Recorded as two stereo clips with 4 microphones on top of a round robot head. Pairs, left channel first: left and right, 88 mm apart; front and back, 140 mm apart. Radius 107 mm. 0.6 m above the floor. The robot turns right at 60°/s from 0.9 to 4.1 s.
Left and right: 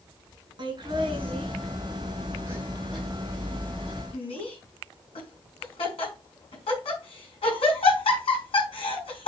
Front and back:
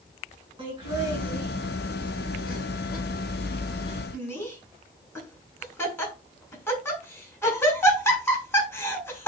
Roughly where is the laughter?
Behind right.